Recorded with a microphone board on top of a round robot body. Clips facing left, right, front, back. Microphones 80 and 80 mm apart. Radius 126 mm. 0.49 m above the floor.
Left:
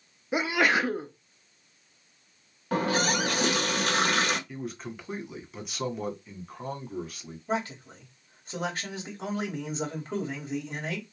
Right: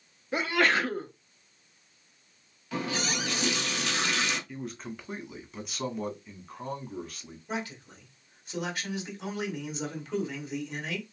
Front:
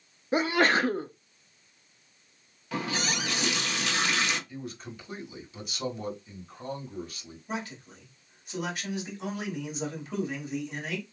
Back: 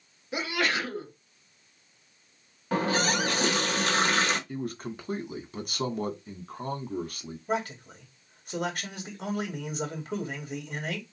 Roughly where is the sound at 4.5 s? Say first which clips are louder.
Left 1 dB, back 6 dB; behind.